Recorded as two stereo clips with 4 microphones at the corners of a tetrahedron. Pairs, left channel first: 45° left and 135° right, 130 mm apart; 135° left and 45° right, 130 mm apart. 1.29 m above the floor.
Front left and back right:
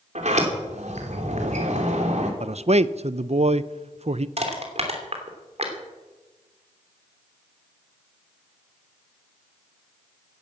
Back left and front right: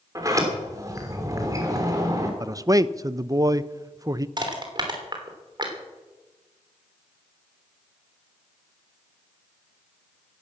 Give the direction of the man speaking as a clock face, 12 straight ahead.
4 o'clock.